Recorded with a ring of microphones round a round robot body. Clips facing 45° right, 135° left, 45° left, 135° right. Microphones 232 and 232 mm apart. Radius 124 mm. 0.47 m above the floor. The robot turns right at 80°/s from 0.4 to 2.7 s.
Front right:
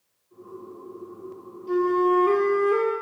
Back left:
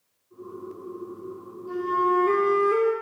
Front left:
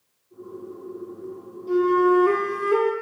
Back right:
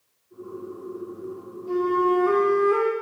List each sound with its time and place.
1.7 s a flute: 20° right, 1.2 m; by 2.9 s 65° left, 1.2 m